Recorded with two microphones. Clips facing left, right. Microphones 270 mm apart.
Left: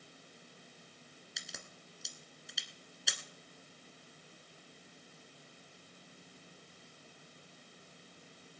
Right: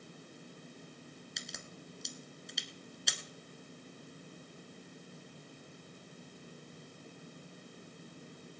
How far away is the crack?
About 1.2 m.